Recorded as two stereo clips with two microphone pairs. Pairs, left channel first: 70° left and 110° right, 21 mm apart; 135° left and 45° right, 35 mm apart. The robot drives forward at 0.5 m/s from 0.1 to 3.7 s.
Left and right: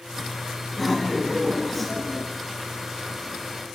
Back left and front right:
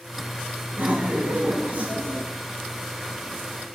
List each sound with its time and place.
0.7 s laughter: 15° right, 3.5 m; by 2.2 s 20° right, 2.5 m